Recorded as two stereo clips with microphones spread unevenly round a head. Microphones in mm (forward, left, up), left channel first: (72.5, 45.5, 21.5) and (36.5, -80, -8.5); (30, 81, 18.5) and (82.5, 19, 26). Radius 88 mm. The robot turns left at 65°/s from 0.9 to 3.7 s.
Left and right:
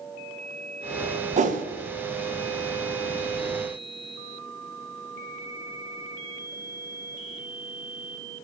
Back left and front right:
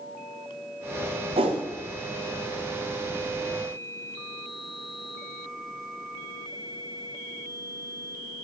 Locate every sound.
1.4 s a whoosh: 75° right, 1.1 m; by 1.6 s 90° right, 1.1 m